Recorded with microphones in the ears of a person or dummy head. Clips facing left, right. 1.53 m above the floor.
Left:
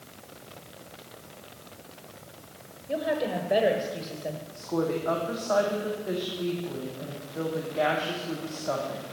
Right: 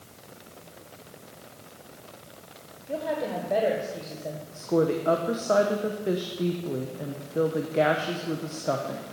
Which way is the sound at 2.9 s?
10° left (ahead or behind).